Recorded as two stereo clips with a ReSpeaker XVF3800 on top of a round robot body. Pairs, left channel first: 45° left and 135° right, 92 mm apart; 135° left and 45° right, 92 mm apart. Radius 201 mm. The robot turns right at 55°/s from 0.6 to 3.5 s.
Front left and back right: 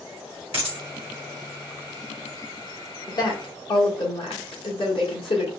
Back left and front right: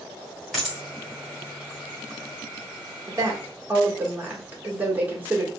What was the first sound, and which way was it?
A dropped coin, 135° right.